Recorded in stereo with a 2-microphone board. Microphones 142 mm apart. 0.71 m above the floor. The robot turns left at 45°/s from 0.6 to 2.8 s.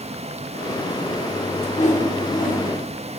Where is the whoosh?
125° left, 2.5 m; by 2.7 s 75° left, 2.5 m.